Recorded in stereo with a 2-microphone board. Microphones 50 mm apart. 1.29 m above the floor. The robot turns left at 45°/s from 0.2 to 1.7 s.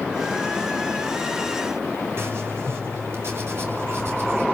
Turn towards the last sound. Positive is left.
turn(degrees=-60)  # may be behind; listen again after turning